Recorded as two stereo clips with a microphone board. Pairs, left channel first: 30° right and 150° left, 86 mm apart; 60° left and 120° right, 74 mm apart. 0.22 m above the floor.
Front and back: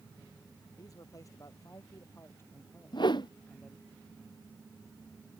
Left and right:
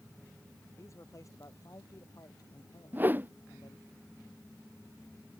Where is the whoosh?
60° right.